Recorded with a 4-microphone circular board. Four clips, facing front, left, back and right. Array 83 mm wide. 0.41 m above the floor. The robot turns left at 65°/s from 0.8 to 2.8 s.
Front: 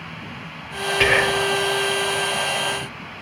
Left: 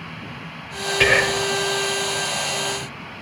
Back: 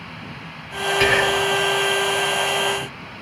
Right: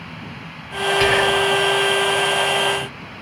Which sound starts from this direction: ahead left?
Whispering, at 1.0 s.